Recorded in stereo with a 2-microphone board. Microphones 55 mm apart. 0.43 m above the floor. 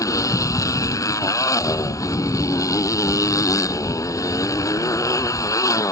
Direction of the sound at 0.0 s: 85° left.